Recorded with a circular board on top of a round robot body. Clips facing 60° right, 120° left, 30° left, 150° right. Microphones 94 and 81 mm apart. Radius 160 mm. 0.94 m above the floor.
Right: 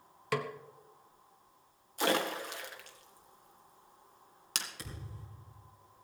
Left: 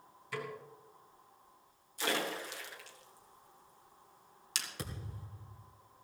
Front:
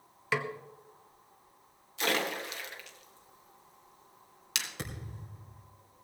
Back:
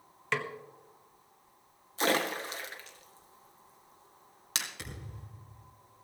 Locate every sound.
0.3 s a snare drum: 55° right, 1.2 m
2.0 s a splash: 95° right, 2 m
4.8 s a thud: 80° left, 3 m